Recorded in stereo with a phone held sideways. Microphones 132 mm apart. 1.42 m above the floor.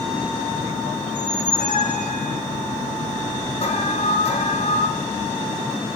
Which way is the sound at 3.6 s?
50° left (ahead or behind).